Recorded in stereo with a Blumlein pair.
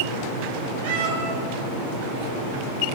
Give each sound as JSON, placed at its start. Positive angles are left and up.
{"t": 0.8, "sound": "a cat meowing", "azimuth_deg": -50, "distance_m": 3.0}